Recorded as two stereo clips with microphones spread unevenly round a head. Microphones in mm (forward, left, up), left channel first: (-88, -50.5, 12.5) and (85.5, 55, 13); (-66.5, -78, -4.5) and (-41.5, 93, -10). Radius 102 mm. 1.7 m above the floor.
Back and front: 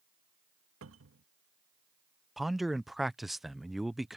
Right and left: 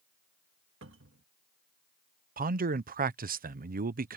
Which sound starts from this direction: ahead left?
A cupboard door, at 0.8 s.